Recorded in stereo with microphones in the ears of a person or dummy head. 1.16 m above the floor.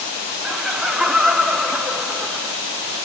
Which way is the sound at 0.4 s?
5° left (ahead or behind).